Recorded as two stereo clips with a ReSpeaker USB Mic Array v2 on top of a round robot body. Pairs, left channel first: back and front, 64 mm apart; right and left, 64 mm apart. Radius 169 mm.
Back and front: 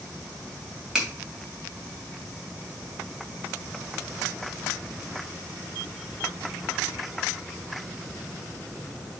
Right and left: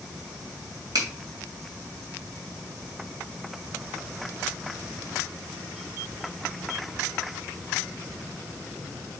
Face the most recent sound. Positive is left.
turn(degrees=80)